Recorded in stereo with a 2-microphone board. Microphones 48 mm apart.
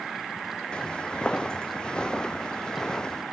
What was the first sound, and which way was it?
Footsteps, 20° left (ahead or behind).